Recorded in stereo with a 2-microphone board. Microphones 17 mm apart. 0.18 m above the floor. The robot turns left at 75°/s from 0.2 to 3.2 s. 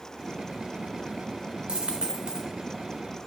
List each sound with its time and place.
1.7 s a dropped coin: 75° right, 0.6 m; by 2.5 s 135° right, 0.6 m